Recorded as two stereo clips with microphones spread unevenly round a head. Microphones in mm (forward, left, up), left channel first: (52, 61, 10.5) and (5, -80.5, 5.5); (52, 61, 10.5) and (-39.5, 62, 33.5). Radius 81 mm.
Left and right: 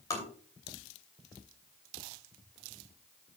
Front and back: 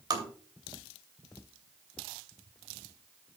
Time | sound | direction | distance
0.1 | tapping | 140° left | 3 m